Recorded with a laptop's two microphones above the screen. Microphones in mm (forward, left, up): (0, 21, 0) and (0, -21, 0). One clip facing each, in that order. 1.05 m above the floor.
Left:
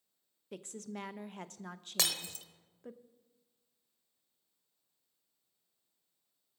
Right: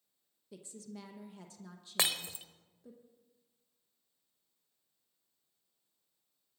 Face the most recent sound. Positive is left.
turn(degrees=-25)  # may be behind; listen again after turning